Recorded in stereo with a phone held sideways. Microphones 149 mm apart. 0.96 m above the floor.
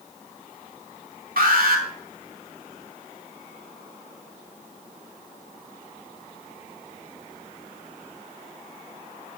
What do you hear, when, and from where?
1.4 s an alarm: 75° right (ahead or behind), 2.5 m